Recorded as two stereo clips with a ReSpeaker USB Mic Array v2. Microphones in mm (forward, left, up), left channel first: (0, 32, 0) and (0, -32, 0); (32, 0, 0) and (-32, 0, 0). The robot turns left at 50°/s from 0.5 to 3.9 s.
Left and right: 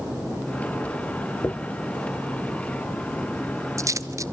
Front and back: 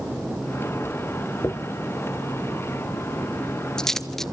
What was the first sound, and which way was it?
A dropped coin, 40° left.